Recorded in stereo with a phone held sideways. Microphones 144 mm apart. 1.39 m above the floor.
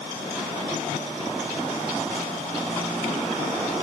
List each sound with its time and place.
Only background noise.